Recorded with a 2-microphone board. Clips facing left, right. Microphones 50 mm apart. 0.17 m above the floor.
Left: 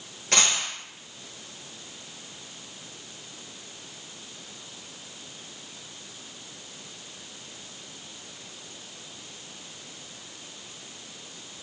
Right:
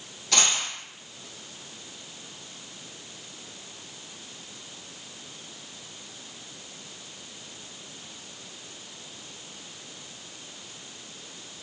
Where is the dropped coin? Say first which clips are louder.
Left 1 dB; 50° left (ahead or behind), 1.4 m.